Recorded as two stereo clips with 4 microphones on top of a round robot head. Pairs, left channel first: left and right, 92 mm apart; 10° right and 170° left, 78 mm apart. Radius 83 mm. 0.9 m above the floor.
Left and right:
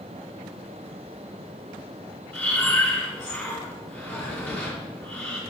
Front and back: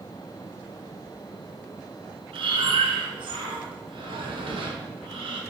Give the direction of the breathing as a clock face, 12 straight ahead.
7 o'clock.